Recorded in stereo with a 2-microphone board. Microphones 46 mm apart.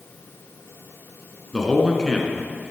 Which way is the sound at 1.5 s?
15° left (ahead or behind).